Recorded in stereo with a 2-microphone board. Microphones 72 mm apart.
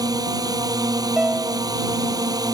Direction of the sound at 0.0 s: 60° right (ahead or behind).